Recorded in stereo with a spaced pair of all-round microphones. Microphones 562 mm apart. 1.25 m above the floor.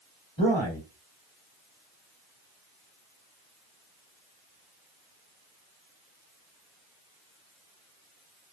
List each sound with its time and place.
0.4 s a man speaking: 50° left (ahead or behind), 1.8 m